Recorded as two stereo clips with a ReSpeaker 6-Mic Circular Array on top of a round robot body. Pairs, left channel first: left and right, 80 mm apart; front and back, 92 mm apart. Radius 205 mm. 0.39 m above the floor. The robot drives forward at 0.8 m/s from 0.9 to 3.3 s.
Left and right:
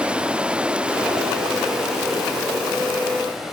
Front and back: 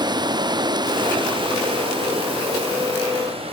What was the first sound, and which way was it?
Running water, 165° right.